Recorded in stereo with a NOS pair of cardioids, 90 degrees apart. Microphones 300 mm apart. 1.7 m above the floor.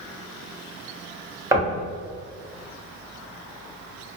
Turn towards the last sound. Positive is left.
turn(degrees=-10)